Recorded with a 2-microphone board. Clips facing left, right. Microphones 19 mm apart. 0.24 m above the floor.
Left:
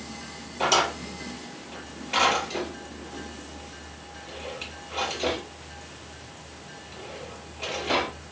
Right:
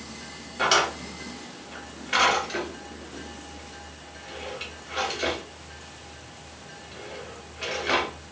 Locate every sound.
0.6 s a drawer: 70° right (ahead or behind), 1.7 m